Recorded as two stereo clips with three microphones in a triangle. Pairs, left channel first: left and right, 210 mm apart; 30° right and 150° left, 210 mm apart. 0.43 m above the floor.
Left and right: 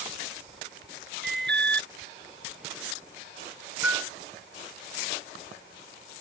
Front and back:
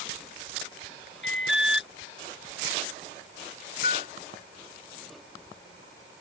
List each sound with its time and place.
1.2 s an alarm: 55° right
3.8 s a piano: 10° right